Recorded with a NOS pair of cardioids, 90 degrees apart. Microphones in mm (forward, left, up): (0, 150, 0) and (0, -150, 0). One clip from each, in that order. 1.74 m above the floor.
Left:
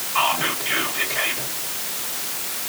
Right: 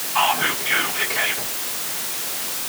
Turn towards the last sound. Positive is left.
turn(degrees=10)